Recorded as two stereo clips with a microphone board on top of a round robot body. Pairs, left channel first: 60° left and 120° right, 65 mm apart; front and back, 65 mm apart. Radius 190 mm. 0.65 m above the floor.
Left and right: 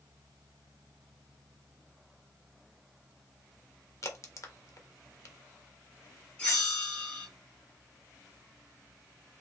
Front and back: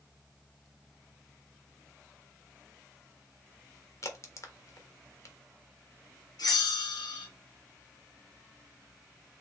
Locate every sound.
4.0 s a crack: 30° left, 1.7 m
6.4 s a bell: 15° right, 3 m